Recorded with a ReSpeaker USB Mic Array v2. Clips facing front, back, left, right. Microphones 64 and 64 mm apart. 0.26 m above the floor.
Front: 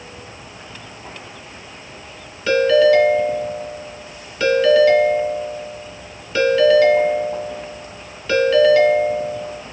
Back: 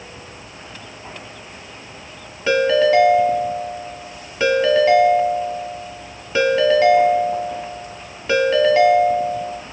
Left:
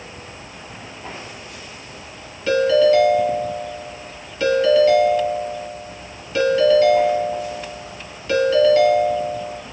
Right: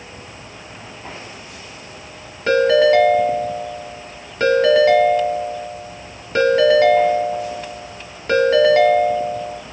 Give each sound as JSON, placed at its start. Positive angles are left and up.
{"t": 2.5, "sound": "a ringtone", "azimuth_deg": -115, "distance_m": 1.3}